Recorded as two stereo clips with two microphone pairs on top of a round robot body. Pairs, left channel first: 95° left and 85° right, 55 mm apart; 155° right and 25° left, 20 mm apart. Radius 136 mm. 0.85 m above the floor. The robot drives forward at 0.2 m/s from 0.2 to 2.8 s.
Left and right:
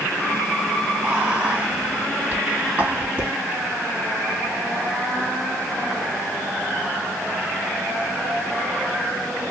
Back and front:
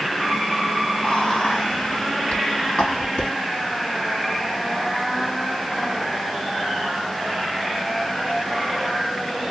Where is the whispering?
145° right, 1.7 m; by 3.3 s 150° right, 2 m.